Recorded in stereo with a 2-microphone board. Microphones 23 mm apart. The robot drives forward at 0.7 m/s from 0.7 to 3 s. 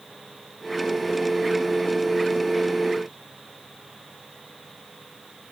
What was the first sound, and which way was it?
Only background noise.